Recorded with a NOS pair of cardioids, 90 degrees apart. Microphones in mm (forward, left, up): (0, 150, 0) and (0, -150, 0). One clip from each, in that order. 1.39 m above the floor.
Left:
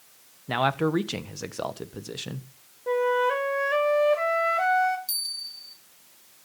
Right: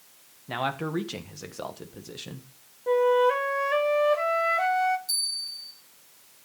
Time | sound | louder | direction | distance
0.5 | a man speaking | left 5 dB | 30° left | 1.3 m
2.9 | a flute | right 2 dB | straight ahead | 1.3 m
5.1 | a bell | right 2 dB | 40° left | 6.5 m